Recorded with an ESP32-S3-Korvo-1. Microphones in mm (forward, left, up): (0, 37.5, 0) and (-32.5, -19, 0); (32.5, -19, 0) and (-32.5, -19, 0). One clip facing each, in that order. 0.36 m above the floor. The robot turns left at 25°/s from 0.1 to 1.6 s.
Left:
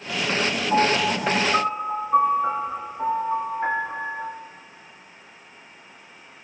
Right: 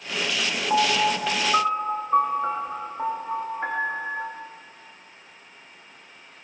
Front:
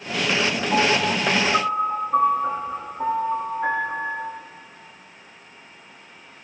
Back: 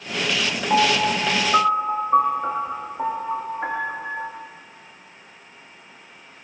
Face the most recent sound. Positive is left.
turn(degrees=165)